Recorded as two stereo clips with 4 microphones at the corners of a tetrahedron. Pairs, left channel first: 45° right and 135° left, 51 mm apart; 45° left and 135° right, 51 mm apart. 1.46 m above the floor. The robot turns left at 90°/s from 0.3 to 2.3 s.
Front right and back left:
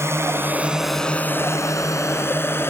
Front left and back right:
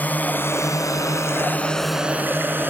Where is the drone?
105° left; by 2.7 s 85° right.